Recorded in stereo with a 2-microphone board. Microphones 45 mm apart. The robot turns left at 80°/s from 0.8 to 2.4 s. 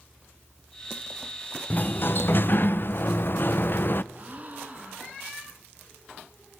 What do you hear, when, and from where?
1.7 s a sliding door: 130° left, 0.7 m; by 4.0 s 75° left, 0.7 m
4.1 s a gasp: 30° right (ahead or behind), 2.5 m